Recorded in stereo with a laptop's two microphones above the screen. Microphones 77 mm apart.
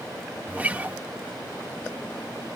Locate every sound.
0.5 s a guitar: 20° right (ahead or behind)